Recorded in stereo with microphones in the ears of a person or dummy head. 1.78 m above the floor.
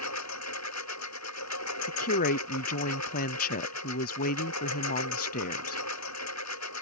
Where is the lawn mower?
85° left.